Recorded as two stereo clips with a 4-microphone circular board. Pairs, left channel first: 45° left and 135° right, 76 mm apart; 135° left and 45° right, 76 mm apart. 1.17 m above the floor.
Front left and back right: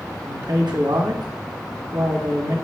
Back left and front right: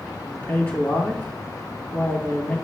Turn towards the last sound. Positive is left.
turn(degrees=-155)